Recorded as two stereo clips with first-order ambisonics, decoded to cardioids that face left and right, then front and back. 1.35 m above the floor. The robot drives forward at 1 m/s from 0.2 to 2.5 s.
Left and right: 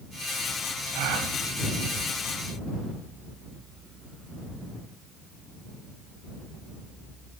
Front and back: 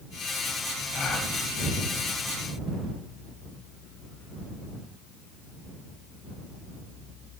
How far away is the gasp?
About 5 m.